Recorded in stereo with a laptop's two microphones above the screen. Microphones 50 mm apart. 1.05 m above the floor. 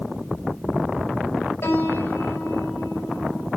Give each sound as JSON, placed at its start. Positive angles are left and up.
{"t": 1.6, "sound": "a piano", "side_deg": 60, "distance_m": 6.0}